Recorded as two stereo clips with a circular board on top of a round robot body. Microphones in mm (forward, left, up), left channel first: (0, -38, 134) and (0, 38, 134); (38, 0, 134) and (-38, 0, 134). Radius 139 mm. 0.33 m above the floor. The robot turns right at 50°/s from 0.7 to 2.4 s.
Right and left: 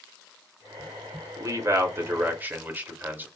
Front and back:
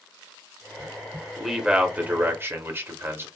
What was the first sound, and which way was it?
A man speaking, 90° left.